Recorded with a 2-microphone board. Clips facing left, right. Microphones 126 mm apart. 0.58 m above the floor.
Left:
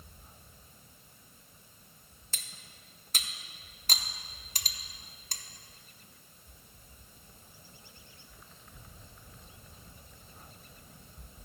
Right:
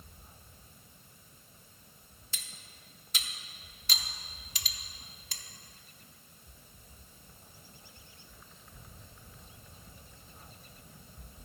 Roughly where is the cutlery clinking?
Left.